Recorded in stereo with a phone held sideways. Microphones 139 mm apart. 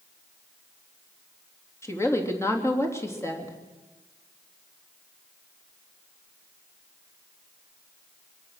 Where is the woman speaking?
20° left (ahead or behind), 3 m.